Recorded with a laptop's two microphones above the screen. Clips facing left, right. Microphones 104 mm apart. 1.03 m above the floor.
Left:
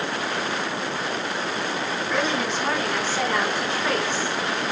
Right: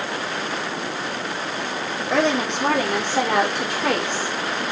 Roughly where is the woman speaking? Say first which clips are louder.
Right 6 dB; right.